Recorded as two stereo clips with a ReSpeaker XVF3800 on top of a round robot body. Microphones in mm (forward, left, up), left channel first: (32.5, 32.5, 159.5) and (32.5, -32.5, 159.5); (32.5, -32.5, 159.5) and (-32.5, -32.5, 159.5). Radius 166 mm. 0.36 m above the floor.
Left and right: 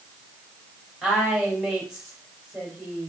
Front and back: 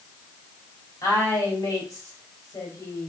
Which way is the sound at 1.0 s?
Straight ahead.